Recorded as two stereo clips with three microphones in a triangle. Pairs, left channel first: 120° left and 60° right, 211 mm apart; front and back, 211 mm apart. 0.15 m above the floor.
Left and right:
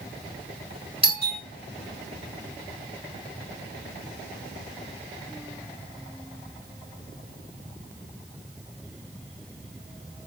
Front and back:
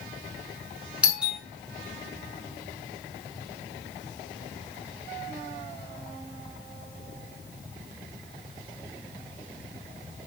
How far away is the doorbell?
About 2.5 m.